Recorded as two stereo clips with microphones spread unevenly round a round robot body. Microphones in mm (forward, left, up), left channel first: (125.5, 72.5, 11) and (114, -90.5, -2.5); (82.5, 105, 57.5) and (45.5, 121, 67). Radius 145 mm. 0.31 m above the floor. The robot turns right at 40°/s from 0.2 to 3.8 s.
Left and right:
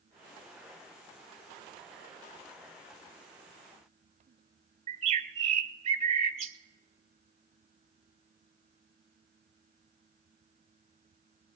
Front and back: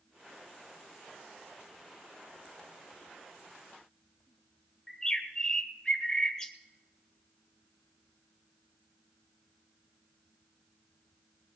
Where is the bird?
80° right, 1.0 m.